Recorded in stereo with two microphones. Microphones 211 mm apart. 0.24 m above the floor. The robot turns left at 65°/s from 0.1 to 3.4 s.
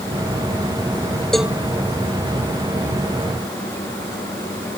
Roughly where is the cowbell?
Centre.